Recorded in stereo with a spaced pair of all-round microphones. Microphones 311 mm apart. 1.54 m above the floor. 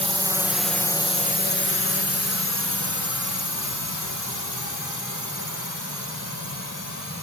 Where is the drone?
20° right (ahead or behind); by 7.2 s 85° left.